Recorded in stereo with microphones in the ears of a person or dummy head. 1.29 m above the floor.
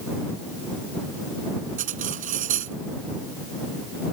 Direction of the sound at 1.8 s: 50° right (ahead or behind).